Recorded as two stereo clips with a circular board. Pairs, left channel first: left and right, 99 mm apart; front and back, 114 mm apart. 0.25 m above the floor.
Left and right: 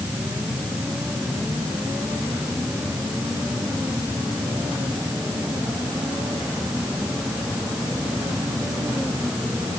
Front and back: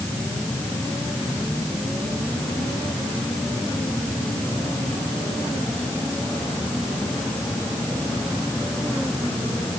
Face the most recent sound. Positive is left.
No sound to turn to.